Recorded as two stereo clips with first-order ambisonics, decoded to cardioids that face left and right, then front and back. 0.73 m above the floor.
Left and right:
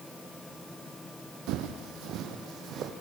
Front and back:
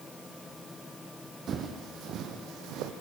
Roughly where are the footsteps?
Behind right.